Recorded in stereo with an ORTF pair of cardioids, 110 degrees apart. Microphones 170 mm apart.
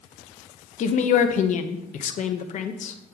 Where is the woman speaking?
50° left, 0.9 m.